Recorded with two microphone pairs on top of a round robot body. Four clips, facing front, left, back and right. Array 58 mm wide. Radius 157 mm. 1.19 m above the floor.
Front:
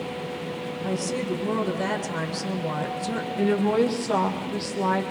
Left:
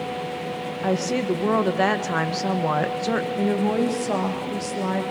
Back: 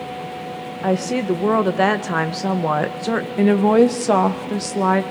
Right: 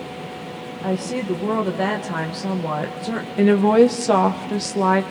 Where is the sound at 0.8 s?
165° left, 1.6 m.